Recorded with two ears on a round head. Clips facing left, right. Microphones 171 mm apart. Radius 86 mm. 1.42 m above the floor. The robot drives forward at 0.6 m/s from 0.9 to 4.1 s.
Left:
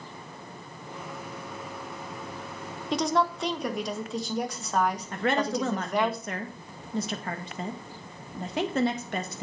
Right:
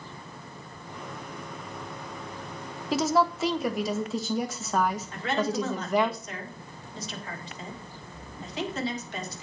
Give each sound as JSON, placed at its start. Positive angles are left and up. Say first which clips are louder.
{"t": 2.9, "sound": "a woman speaking", "louder": "right 2 dB", "side_deg": -5, "distance_m": 0.9}
{"t": 5.1, "sound": "a woman speaking", "louder": "left 1 dB", "side_deg": 45, "distance_m": 1.7}